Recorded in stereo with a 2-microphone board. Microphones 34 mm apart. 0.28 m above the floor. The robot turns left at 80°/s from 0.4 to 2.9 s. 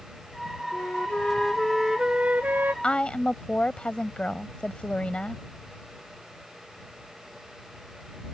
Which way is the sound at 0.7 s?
80° left.